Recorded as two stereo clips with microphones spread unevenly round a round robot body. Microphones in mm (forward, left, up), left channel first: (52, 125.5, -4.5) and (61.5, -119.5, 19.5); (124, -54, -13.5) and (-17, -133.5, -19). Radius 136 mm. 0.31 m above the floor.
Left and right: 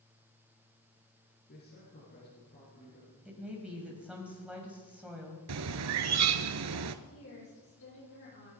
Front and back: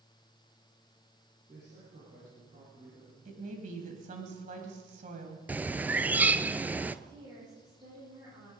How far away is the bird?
About 0.9 m.